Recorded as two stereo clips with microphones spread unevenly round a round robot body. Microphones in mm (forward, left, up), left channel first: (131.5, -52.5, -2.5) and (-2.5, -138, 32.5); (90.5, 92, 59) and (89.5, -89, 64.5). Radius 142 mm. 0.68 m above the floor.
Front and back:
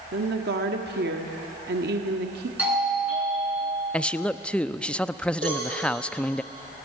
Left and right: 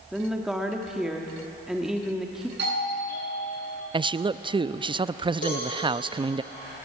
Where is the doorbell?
65° right, 9 m.